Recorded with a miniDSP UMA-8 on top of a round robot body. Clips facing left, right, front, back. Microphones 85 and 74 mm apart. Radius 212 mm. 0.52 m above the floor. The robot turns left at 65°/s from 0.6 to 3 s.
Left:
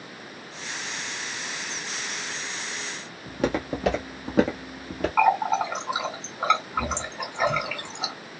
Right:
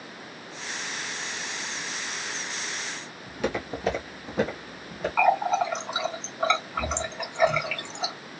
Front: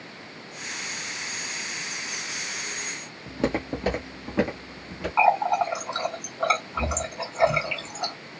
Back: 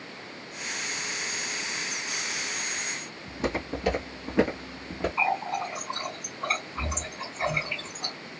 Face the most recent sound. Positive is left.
turn(degrees=10)